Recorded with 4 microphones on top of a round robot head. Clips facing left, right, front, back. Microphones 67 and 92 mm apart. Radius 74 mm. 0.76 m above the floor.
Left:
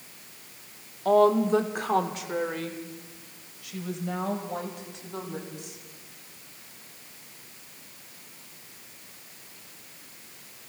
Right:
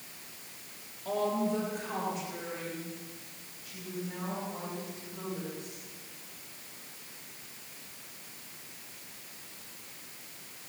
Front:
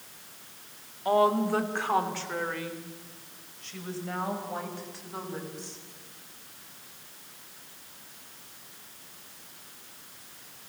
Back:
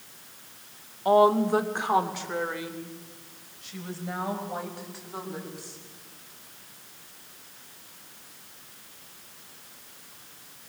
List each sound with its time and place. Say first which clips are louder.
1.1 s a woman speaking: left 10 dB, back 4 dB; 115° left, 2 m; by 5.8 s 100° left, 7 m